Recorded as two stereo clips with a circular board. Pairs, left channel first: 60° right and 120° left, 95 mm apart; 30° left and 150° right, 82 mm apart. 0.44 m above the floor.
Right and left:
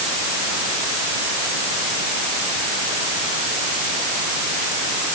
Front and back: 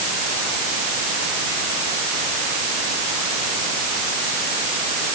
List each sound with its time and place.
Only background noise.